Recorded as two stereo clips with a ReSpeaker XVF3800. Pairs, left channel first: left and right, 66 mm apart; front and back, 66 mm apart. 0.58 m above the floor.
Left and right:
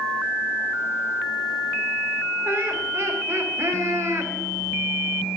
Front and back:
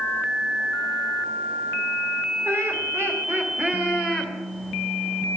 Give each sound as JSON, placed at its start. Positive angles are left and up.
{"t": 2.5, "sound": "laughter", "azimuth_deg": -140, "distance_m": 3.0}